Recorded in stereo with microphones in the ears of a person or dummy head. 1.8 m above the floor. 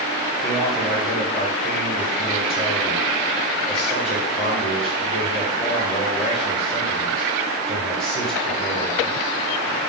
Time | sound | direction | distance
0.4 | a man speaking | centre (ahead or behind) | 1.3 m